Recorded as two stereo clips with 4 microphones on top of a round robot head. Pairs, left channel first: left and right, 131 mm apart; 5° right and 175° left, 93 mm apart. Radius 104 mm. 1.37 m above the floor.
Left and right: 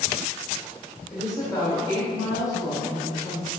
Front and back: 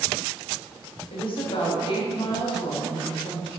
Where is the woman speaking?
25° left, 1.4 m.